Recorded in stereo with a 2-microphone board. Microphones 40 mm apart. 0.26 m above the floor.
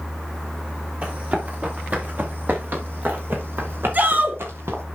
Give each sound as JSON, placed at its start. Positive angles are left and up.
{"t": 1.0, "sound": "running footsteps", "side_deg": -35, "distance_m": 4.5}
{"t": 3.9, "sound": "a shout", "side_deg": -45, "distance_m": 2.0}